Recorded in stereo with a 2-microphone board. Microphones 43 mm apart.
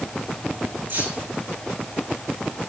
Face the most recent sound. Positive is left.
turn(degrees=-60)  # may be behind; listen again after turning